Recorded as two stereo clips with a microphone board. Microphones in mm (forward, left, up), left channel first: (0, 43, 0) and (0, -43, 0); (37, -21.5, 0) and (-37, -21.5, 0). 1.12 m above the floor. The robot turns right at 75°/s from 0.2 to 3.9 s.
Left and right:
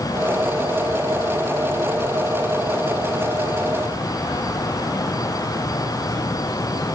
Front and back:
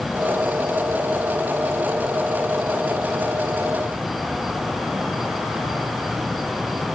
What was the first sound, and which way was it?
Only background noise.